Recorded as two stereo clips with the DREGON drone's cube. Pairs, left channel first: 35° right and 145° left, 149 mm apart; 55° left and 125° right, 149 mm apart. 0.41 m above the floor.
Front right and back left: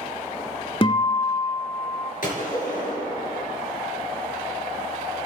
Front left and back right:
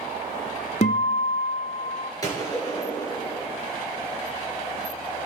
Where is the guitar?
15° left, 0.8 m.